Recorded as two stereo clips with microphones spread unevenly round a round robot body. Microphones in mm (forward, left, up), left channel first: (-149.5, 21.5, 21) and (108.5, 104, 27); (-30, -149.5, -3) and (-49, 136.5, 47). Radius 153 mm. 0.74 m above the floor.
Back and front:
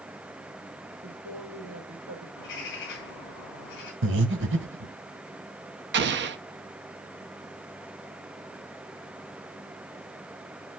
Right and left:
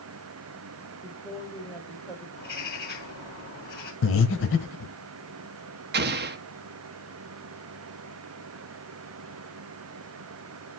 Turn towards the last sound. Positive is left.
turn(degrees=40)